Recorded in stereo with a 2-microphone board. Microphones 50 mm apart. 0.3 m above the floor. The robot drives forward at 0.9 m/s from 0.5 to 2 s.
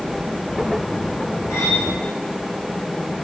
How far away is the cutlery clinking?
About 10 m.